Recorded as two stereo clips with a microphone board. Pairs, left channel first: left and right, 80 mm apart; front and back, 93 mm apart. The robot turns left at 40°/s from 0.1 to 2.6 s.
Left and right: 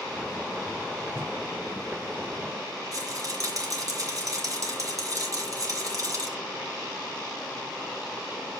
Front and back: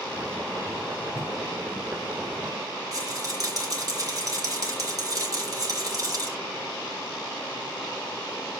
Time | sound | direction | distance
1.1 | a whoosh | 40° right | 0.9 m
2.9 | a rattle | 135° right | 3 m